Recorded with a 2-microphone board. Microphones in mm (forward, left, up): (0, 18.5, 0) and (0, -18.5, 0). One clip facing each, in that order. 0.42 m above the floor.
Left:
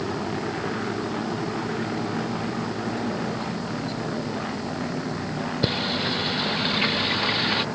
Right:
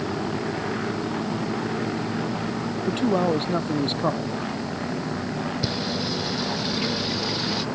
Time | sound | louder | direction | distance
2.9 | a man speaking | right 6 dB | 65° right (ahead or behind) | ?
5.6 | singing | left 2 dB | 40° left (ahead or behind) | ?